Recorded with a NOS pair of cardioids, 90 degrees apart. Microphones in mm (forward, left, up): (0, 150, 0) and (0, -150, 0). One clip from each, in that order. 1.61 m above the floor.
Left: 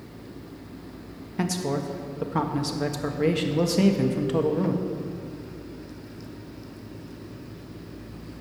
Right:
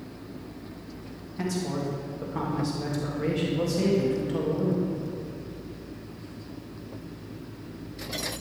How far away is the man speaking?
About 1.6 m.